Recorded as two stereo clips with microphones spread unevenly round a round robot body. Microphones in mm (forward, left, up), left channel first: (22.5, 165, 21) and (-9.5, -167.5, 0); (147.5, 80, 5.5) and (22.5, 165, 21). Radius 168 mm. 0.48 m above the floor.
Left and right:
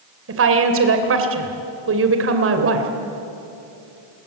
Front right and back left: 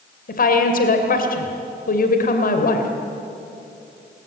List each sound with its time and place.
0.3 s a woman speaking: 50° right, 2.5 m